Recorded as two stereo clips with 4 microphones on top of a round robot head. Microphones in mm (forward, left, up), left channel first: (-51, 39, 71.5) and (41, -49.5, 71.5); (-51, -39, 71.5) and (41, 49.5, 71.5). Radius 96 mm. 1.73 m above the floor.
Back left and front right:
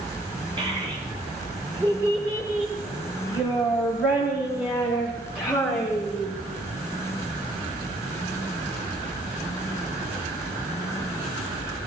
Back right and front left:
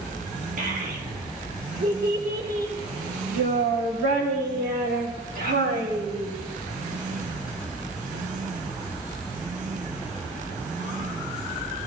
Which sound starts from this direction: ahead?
A child speaking, at 0.6 s.